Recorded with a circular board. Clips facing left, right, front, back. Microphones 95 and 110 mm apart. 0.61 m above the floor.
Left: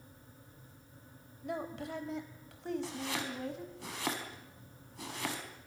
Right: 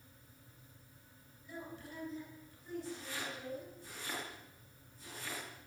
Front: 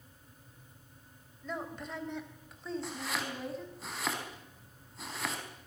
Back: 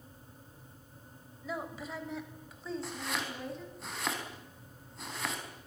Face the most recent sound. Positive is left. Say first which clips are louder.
# left 5 dB, even
turn(degrees=90)